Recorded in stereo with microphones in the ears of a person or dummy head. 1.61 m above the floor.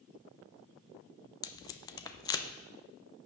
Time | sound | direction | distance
1.4 | tape being pulled | 25° left (ahead or behind) | 0.7 m